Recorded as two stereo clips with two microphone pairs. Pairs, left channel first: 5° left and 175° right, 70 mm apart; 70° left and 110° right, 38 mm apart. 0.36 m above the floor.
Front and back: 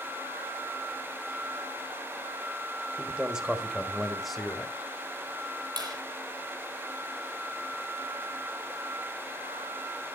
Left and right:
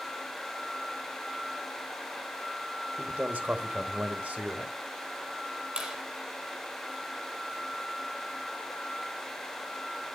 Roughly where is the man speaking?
Behind right.